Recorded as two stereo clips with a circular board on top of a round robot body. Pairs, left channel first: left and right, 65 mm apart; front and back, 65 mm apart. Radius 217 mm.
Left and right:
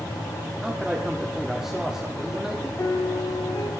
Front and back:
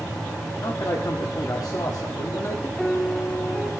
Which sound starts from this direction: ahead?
A man speaking, at 0.6 s.